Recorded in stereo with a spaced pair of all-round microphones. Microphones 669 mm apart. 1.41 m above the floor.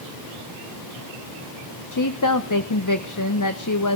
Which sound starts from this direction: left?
A woman speaking, at 1.9 s.